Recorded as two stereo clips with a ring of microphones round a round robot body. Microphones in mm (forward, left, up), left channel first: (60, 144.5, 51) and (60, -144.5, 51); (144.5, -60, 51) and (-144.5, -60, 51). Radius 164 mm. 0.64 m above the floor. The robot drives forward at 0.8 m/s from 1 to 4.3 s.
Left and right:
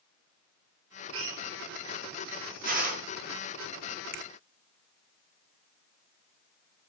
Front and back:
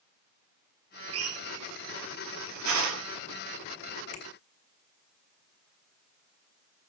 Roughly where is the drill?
Behind right.